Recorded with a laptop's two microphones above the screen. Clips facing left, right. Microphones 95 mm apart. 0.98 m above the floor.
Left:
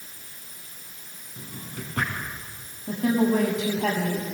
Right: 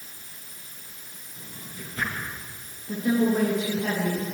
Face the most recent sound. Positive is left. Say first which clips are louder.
# left 1 dB
turn(degrees=85)